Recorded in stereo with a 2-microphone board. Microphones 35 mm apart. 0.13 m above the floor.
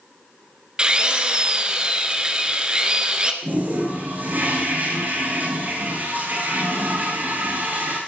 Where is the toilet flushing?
60° right (ahead or behind), 9.5 m.